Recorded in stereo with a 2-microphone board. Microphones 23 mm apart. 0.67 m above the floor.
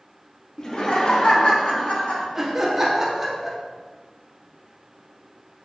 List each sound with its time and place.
0.6 s laughter: 25° left (ahead or behind), 0.7 m; by 2.2 s 65° left (ahead or behind), 1.6 m
2.4 s laughter: 15° right (ahead or behind), 0.8 m